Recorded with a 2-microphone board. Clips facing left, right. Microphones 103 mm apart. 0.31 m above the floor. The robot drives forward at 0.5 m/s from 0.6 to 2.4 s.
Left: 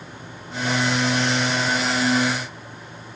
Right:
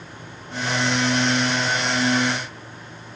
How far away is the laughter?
No laughter in this recording.